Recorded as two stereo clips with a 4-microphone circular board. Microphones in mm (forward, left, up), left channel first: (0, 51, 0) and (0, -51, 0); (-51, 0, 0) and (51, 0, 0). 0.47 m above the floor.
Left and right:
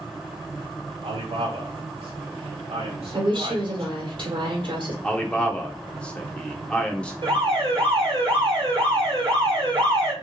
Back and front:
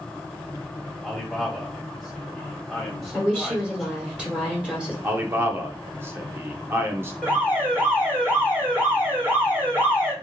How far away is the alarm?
About 2 m.